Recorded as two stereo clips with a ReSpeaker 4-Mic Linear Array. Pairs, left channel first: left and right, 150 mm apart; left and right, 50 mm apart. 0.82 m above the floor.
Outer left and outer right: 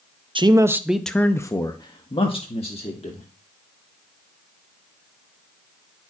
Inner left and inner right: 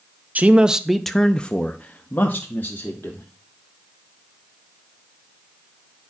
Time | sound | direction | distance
0.3 | a man speaking | 35° right (ahead or behind) | 0.5 m